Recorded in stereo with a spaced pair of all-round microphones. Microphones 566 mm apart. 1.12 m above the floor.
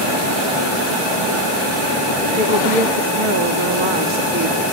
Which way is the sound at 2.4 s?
55° right (ahead or behind).